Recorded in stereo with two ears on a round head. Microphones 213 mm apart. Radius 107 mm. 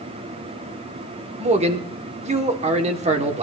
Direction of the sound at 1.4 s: 25° right (ahead or behind).